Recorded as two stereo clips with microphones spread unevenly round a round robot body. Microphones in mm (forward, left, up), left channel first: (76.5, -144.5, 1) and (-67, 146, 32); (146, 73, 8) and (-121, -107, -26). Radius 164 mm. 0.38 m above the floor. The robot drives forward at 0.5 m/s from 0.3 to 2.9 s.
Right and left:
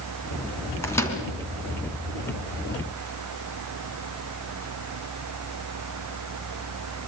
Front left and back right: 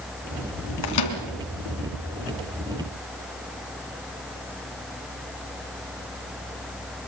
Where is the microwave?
20° left, 3 m.